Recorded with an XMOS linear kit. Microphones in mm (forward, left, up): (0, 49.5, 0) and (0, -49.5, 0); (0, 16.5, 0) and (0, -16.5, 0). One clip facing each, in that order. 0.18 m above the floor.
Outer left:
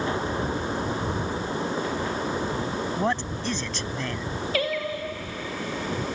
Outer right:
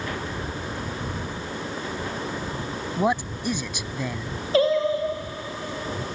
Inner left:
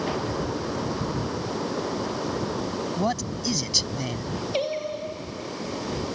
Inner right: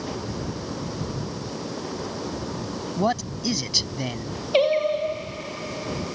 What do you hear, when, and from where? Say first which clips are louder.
3.0 s a man speaking: outer right 6 dB, inner right 5 dB; 10° right (ahead or behind)
4.5 s singing: outer right 9 dB, inner right 10 dB; 30° right (ahead or behind)